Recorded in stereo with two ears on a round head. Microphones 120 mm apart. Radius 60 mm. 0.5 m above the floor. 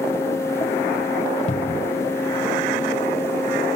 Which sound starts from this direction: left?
A cupboard door, at 1.5 s.